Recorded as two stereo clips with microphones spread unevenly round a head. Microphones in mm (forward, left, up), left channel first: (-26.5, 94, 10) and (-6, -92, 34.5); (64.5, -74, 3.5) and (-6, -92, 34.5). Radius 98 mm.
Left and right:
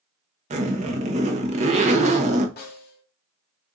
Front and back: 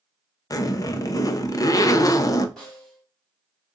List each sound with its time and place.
0.5 s a zipper: 25° right, 0.8 m
2.6 s a snare drum: 120° left, 1.1 m